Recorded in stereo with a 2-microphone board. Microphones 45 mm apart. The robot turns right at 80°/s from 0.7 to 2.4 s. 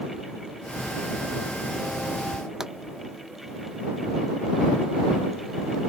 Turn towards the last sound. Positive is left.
turn(degrees=-10)  # may be behind; listen again after turning